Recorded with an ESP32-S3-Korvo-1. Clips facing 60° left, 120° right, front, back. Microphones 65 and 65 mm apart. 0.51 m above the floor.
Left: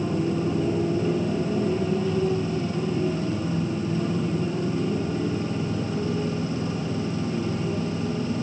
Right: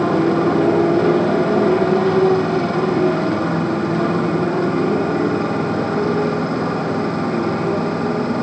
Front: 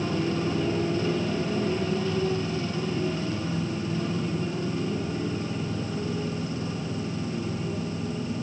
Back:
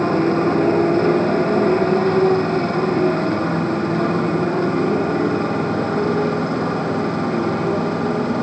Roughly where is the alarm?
No alarm in this recording.